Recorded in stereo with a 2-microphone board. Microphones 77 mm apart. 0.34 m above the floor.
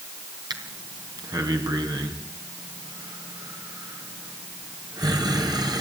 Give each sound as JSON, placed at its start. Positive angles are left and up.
{"t": 0.5, "sound": "breathing", "side_deg": -60, "distance_m": 3.5}